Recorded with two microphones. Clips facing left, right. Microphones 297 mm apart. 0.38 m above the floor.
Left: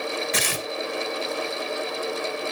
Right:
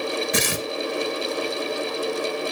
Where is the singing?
No singing in this recording.